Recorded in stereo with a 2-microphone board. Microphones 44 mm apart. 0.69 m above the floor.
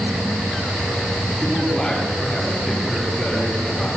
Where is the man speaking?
10° left (ahead or behind), 9.5 m.